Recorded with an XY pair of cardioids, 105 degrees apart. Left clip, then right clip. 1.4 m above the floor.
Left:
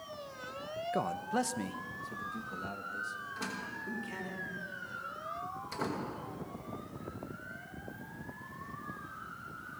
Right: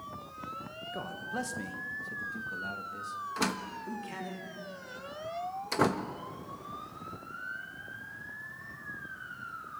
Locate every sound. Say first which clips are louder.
0.9 s a man speaking: left 4 dB; 50° left, 1.1 m; by 4.4 s 15° right, 3.5 m
3.4 s a door slam: right 6 dB; 70° right, 1.2 m